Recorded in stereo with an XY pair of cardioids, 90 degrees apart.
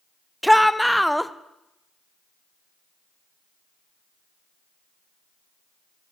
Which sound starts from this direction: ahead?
A shout, at 0.4 s.